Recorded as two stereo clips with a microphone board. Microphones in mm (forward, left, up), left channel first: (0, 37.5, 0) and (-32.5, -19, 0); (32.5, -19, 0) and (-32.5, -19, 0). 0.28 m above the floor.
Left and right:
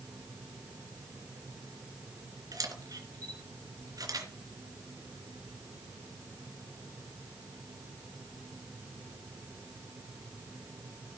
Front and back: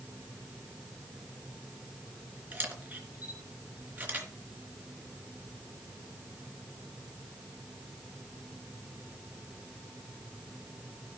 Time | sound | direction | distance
2.5 | a camera shutter | 120° right | 3 m